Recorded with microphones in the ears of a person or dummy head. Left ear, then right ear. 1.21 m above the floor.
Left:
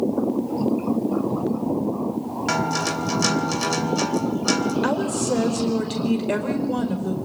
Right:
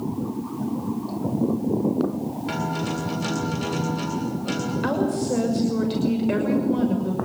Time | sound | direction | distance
2.5 | a guitar | 50° left (ahead or behind) | 2.5 m
4.8 | a woman speaking | 30° left (ahead or behind) | 5.5 m